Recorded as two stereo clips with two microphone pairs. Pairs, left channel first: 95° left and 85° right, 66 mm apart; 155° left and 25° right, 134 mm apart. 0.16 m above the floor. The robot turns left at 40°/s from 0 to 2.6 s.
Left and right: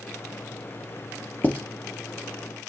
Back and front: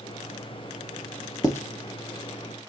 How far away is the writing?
About 0.7 m.